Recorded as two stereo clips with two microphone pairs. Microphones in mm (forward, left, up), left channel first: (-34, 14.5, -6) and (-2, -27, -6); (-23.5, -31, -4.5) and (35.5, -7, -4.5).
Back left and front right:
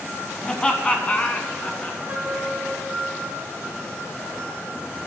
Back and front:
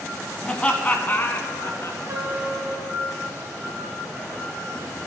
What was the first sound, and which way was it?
Laughter, 155° left.